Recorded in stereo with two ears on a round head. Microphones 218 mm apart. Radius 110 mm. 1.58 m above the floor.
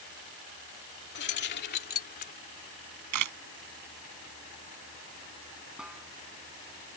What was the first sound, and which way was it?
Keys jangling, 50° left (ahead or behind).